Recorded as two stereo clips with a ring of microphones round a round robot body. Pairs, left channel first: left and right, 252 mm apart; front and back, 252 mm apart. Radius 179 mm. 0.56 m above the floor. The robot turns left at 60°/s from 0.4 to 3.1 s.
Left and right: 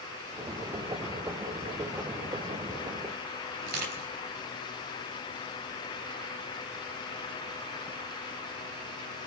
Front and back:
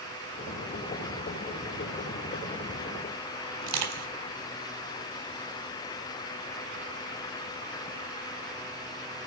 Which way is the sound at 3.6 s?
150° right.